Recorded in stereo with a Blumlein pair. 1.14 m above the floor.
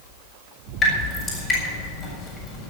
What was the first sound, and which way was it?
Dripping, 25° left.